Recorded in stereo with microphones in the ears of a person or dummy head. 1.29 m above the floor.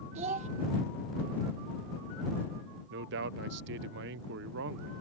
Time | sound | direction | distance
0.1 | a child speaking | 40° right (ahead or behind) | ?
2.9 | a man speaking | 55° right (ahead or behind) | ?